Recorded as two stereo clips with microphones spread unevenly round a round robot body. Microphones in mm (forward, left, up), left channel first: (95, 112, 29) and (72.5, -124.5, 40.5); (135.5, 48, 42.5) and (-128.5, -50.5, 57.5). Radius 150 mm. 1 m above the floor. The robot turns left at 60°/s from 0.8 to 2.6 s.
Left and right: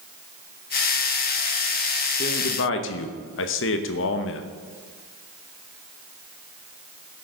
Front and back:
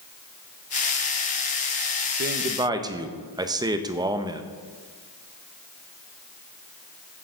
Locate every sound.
2.2 s a man speaking: 150° left, 0.8 m; by 4.4 s 125° left, 0.8 m